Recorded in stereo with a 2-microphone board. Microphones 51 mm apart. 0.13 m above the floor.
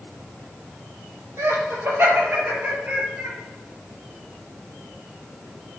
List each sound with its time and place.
1.4 s laughter: 50° right (ahead or behind), 4 m; by 3.3 s 35° right (ahead or behind), 3 m